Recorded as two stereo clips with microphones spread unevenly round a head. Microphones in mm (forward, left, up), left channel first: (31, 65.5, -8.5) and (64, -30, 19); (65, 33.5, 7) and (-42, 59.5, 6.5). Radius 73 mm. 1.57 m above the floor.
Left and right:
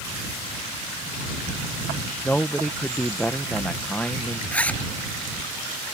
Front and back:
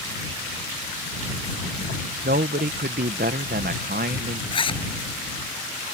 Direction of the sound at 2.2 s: 165° right.